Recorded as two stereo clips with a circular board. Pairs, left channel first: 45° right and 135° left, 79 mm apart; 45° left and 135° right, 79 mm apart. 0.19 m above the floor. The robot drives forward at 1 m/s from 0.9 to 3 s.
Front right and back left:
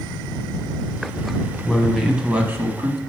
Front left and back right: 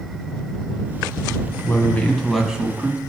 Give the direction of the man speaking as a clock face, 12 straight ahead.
11 o'clock.